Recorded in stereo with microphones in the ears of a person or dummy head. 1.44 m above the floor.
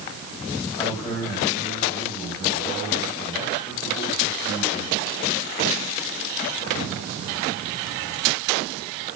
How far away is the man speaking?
About 8 m.